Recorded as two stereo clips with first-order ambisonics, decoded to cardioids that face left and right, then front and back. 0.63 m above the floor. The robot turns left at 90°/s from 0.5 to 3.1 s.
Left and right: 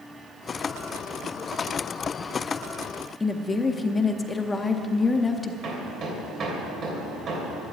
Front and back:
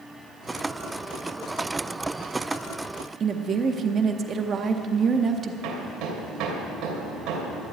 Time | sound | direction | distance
3.2 | a woman speaking | 155° left | 0.7 m
5.6 | hammering | 145° right | 2.5 m